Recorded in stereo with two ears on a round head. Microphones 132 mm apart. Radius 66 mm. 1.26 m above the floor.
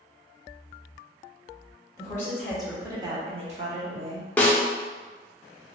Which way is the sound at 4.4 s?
10° left (ahead or behind).